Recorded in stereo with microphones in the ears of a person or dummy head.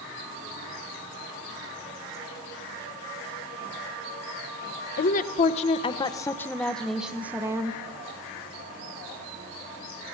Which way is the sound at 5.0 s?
45° left (ahead or behind).